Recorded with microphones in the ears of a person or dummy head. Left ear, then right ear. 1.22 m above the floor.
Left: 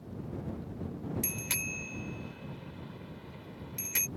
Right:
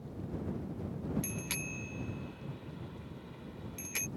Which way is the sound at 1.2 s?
10° left (ahead or behind).